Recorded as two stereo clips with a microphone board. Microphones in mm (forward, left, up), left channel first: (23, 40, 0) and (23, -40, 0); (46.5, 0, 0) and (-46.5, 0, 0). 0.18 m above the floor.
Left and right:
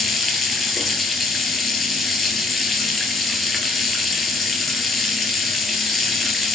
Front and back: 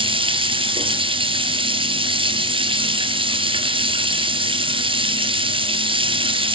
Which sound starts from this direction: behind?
Running water, at 0.0 s.